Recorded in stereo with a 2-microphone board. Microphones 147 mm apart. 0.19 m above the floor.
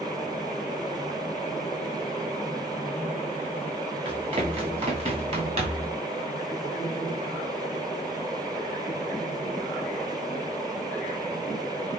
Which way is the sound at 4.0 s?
40° right (ahead or behind).